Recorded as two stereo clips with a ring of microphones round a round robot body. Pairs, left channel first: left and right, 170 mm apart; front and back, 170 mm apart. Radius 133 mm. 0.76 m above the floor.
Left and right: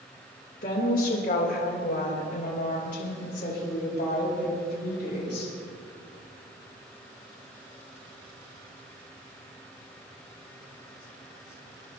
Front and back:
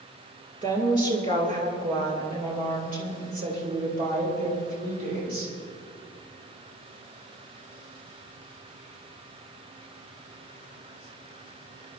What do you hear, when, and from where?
0.6 s a woman speaking: 135° left, 3 m; by 5.5 s 150° left, 5.5 m